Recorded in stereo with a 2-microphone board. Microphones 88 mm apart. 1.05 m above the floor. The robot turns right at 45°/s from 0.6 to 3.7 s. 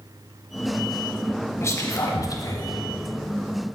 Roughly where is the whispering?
Left.